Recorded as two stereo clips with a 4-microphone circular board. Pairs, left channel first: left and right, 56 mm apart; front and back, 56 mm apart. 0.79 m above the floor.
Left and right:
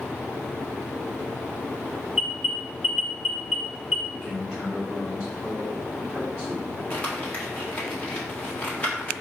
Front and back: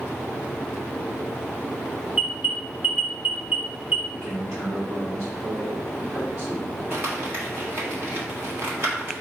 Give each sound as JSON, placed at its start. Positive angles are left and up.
{"t": 2.1, "sound": "an alarm", "azimuth_deg": -175, "distance_m": 1.2}
{"t": 4.1, "sound": "a man speaking", "azimuth_deg": -170, "distance_m": 1.1}
{"t": 6.9, "sound": "crumpling", "azimuth_deg": 145, "distance_m": 1.4}